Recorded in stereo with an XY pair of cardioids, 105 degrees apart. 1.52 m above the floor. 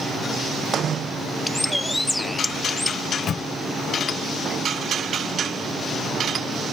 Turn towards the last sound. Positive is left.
turn(degrees=55)